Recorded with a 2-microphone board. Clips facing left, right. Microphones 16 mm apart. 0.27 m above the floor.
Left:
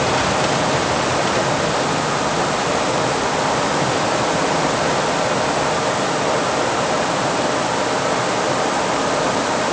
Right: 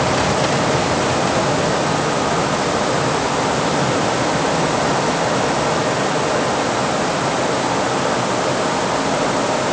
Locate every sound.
Only background noise.